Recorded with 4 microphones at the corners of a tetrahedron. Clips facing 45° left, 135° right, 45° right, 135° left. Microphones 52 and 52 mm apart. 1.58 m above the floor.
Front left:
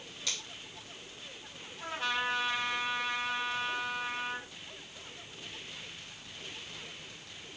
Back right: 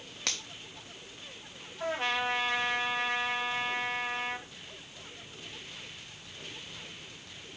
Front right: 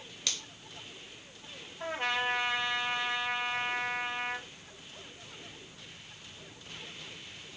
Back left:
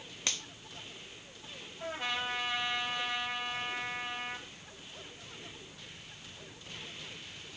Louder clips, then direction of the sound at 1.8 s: Back right 3 dB, front right 4 dB; 90° right.